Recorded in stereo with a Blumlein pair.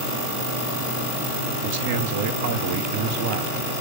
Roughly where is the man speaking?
Ahead right.